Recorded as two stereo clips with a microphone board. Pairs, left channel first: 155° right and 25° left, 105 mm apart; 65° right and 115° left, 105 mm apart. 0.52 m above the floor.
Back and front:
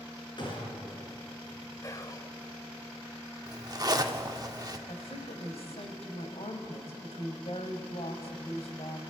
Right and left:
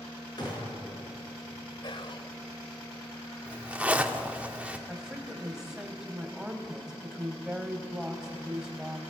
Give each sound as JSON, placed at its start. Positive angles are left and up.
{"t": 0.4, "sound": "a gunshot", "azimuth_deg": -115, "distance_m": 5.5}
{"t": 1.8, "sound": "whispering", "azimuth_deg": -100, "distance_m": 1.7}
{"t": 3.5, "sound": "a zipper", "azimuth_deg": 40, "distance_m": 1.2}
{"t": 4.9, "sound": "a woman speaking", "azimuth_deg": -165, "distance_m": 2.5}